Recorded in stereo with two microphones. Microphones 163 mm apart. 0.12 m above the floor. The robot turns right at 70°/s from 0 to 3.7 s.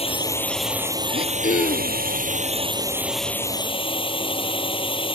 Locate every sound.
0.0 s a drone: 135° left; by 5.2 s 35° left
1.1 s throat clearing: 70° left; by 2.0 s 130° left